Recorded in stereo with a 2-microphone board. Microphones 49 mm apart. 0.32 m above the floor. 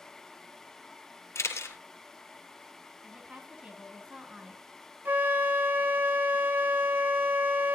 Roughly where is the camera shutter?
Left.